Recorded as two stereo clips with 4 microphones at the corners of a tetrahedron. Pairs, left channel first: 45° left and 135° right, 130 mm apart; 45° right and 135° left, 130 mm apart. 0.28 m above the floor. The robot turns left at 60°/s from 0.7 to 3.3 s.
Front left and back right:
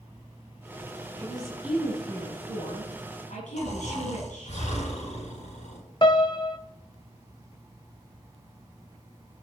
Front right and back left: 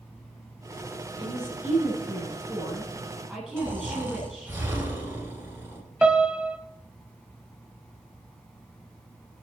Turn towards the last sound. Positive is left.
turn(degrees=60)